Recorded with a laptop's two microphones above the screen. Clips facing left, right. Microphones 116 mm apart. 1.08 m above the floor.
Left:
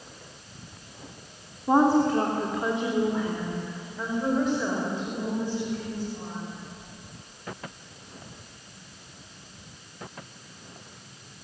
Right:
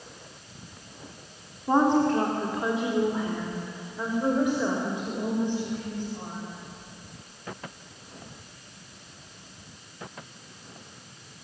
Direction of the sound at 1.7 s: 10° left (ahead or behind).